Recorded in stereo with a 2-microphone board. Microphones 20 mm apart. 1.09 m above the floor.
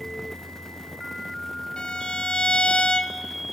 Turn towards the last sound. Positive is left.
turn(degrees=45)  # may be behind; listen again after turning